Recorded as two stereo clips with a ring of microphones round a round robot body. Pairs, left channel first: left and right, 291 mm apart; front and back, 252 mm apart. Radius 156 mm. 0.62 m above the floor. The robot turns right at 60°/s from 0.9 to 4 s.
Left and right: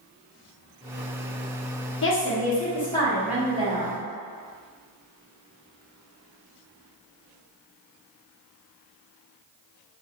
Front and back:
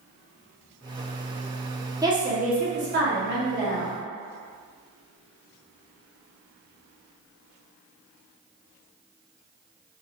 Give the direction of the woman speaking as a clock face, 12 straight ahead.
8 o'clock.